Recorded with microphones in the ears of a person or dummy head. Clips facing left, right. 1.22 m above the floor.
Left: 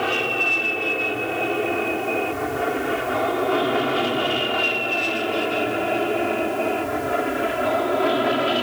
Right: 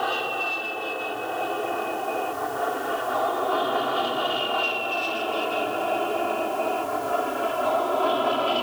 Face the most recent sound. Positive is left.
turn(degrees=20)  # may be behind; listen again after turning